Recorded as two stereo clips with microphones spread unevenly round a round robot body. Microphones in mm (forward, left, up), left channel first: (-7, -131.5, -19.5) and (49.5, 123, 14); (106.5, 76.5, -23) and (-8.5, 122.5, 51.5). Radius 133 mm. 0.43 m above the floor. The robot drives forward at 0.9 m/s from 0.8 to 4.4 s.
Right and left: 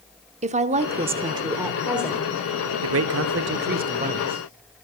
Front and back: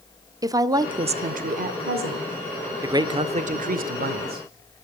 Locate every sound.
0.4 s a woman speaking: 50° left, 0.8 m; by 2.7 s 175° left, 1.7 m
2.8 s a man speaking: 65° left, 1.0 m; by 4.5 s 150° left, 1.5 m